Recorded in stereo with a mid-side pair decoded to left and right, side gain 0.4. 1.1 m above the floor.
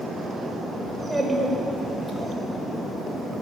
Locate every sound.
0.9 s a child speaking: straight ahead, 4 m; by 2.4 s 25° left, 4 m